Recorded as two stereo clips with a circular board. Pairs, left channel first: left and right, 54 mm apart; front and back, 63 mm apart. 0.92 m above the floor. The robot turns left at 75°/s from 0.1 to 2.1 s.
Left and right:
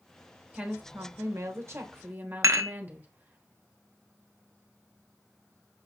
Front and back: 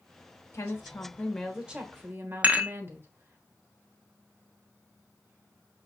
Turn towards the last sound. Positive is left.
turn(degrees=-115)